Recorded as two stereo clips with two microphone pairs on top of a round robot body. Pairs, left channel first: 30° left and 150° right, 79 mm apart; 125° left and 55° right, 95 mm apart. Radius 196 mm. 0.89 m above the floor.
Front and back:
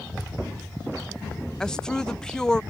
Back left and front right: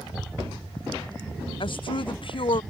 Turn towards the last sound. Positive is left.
turn(degrees=110)